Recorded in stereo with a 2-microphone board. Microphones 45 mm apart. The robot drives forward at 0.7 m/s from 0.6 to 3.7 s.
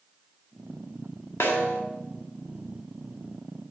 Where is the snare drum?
65° left (ahead or behind), 1.7 m.